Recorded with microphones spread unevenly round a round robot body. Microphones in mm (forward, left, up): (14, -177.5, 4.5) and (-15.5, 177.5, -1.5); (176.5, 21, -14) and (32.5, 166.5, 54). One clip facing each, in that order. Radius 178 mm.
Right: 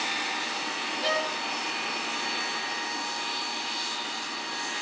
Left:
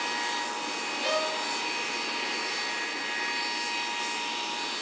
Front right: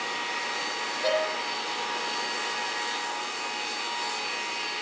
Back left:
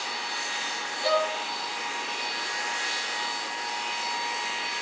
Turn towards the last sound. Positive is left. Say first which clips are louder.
# even, back left 1 dB
turn(degrees=-110)